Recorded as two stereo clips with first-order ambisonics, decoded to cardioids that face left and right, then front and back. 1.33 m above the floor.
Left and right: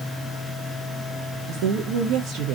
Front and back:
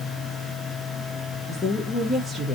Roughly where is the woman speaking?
Right.